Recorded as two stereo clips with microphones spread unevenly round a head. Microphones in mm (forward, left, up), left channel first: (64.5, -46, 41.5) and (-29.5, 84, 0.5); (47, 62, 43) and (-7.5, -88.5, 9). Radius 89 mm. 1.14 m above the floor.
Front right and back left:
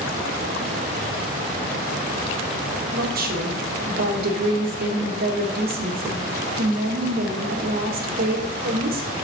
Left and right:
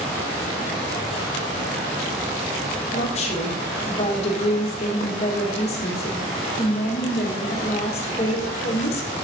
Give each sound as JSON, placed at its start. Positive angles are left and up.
{"t": 2.9, "sound": "a woman speaking", "azimuth_deg": 125, "distance_m": 1.7}